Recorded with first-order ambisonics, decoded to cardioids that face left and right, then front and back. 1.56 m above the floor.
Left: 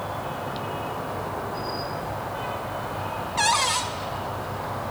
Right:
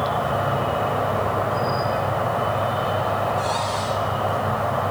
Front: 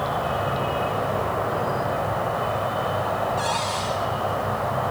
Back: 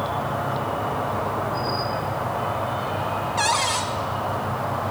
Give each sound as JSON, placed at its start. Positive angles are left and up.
{"t": 0.0, "sound": "an insect", "azimuth_deg": -70, "distance_m": 3.0}
{"t": 3.4, "sound": "a cupboard door", "azimuth_deg": 120, "distance_m": 3.0}